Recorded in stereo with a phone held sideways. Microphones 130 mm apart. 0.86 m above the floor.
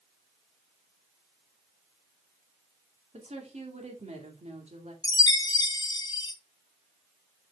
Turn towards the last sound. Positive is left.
turn(degrees=30)  # may be behind; listen again after turning